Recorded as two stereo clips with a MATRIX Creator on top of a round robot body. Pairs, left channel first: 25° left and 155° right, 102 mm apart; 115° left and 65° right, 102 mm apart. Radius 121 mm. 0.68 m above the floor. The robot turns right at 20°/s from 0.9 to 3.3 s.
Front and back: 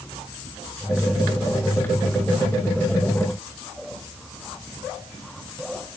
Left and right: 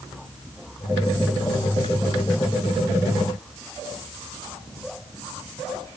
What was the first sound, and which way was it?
Only background noise.